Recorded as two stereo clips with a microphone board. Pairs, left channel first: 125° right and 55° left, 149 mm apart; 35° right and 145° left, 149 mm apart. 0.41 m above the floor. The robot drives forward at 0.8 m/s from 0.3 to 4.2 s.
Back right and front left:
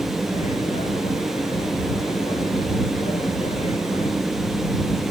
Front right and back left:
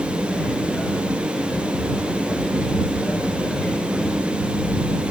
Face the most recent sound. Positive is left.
No sound to turn to.